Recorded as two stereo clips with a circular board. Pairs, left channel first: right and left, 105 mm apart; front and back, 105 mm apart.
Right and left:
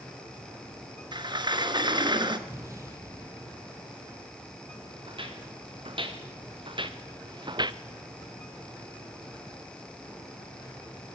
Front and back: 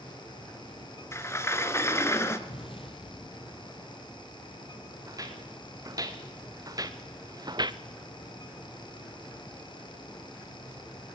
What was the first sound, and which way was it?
A sliding door, 60° left.